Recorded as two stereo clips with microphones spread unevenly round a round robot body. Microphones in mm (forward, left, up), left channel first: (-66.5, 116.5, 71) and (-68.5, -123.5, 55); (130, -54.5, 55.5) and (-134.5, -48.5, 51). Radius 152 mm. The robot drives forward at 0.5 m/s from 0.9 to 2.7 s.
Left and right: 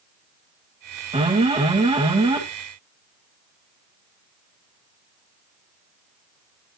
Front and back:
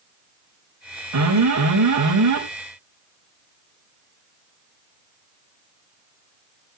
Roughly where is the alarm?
Behind right.